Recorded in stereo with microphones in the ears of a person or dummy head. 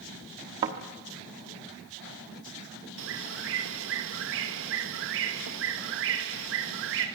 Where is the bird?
75° right (ahead or behind), 2.0 m.